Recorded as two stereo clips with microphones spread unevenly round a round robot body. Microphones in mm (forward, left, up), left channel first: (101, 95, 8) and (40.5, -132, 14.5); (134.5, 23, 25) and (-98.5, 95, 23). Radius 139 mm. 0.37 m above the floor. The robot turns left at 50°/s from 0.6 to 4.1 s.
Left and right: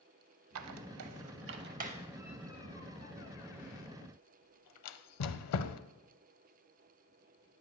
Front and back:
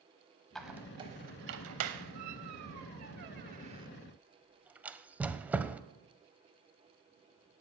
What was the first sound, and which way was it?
A squeak, 105° right.